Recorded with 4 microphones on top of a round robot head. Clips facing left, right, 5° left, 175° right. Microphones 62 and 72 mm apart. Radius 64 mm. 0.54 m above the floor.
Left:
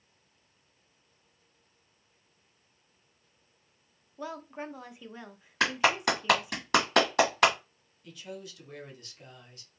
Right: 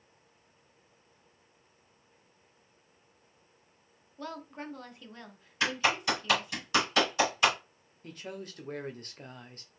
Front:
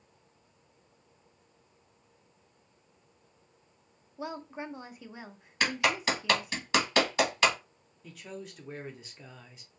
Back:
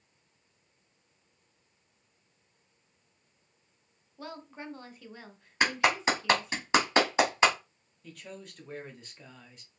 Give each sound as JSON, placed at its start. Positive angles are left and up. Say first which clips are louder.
{"t": 4.2, "sound": "a woman speaking", "louder": "left 2 dB, front 4 dB", "azimuth_deg": 35, "distance_m": 0.7}
{"t": 5.6, "sound": "a clap", "louder": "left 3 dB, back 2 dB", "azimuth_deg": 120, "distance_m": 1.6}
{"t": 8.0, "sound": "a man speaking", "louder": "right 1 dB, front 2 dB", "azimuth_deg": -80, "distance_m": 0.8}